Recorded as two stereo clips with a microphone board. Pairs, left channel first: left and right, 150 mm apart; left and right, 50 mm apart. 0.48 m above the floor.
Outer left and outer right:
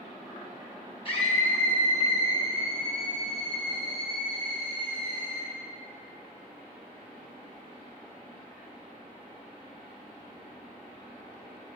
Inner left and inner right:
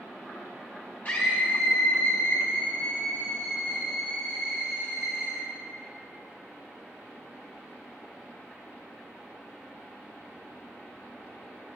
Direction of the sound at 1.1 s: 35° left (ahead or behind).